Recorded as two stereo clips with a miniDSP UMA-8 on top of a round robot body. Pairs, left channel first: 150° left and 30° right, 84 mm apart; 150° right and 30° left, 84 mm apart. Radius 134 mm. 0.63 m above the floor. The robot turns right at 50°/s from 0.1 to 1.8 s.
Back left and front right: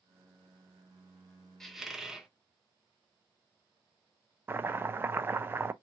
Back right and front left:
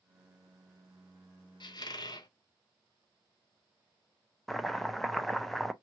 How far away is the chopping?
About 0.6 m.